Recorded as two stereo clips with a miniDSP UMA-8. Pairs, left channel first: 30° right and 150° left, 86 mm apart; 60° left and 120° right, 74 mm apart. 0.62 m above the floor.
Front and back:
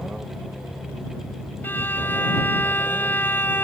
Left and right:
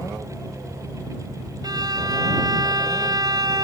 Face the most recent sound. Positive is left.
turn(degrees=-95)